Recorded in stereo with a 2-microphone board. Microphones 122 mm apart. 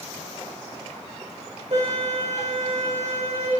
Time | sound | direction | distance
1.7 | a violin | 60° right (ahead or behind) | 6.5 m